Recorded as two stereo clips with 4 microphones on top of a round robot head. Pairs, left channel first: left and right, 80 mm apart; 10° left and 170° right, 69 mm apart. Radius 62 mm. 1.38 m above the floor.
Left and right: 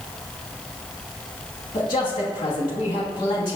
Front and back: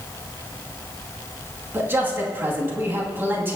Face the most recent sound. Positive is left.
turn(degrees=130)